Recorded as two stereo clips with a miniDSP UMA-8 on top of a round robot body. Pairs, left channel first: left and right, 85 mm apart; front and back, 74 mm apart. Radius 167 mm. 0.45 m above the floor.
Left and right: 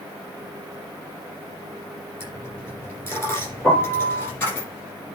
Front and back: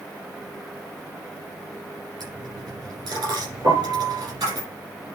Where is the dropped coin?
155° left, 6 m.